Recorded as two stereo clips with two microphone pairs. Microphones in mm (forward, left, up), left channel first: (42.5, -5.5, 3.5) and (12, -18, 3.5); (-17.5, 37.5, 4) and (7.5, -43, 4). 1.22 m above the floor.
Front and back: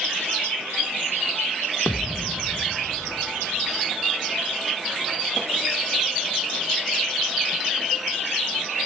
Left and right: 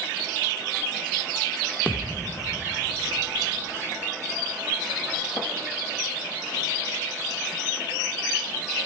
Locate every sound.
1.9 s a thud: 40° left, 1.4 m